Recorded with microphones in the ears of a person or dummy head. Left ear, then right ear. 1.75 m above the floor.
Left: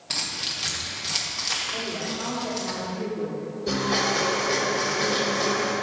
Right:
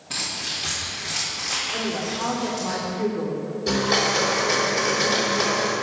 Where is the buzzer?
I don't hear a buzzer.